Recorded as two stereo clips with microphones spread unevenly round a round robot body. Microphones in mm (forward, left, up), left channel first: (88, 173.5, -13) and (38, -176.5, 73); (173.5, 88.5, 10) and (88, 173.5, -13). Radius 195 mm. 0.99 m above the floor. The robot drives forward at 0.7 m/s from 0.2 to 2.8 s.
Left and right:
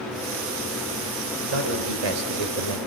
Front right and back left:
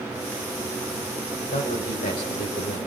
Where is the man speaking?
85° right, 5.5 m; by 2.8 s 95° right, 5.5 m.